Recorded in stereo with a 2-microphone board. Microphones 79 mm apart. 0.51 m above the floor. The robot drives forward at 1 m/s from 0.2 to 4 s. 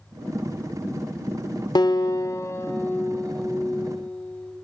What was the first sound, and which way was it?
A guitar, 55° left (ahead or behind).